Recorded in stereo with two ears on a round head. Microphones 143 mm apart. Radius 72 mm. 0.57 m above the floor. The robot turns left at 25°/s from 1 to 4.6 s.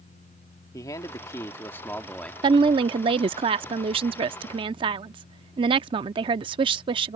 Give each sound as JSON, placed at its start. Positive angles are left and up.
{"t": 0.7, "sound": "a man speaking", "azimuth_deg": 45}
{"t": 2.4, "sound": "a woman speaking", "azimuth_deg": -55}